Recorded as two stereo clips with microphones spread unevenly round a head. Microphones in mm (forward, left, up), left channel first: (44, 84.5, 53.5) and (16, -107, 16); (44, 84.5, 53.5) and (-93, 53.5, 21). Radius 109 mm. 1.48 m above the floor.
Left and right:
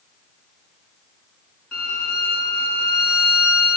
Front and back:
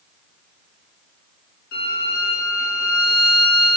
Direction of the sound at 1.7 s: 10° right.